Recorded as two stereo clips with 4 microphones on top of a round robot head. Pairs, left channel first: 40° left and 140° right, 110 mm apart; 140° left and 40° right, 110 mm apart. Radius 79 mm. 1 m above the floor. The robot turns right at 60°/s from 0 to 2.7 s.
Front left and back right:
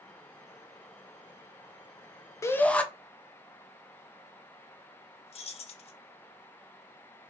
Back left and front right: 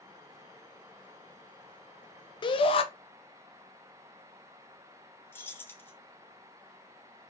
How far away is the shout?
About 0.6 m.